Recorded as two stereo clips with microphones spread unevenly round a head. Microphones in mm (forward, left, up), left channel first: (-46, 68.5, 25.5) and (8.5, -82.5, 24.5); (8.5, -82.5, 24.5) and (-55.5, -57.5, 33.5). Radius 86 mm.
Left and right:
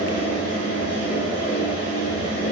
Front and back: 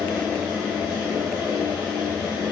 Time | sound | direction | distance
0.0 | a fan | 20° right | 1.6 m